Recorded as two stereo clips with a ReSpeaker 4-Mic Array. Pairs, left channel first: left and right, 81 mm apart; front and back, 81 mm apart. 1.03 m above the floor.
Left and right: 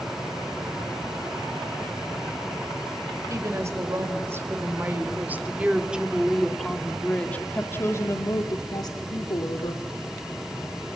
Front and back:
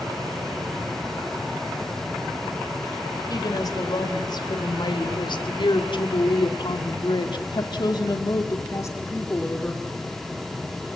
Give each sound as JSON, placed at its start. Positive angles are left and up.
{"t": 3.3, "sound": "a woman speaking", "azimuth_deg": -40, "distance_m": 3.5}